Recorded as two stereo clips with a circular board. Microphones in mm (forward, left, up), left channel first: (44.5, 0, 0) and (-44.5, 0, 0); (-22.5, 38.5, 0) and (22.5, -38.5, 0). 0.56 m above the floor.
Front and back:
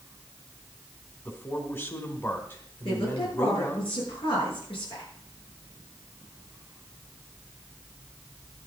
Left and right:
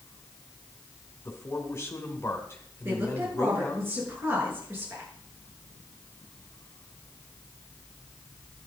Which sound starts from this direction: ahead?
A woman speaking, at 2.9 s.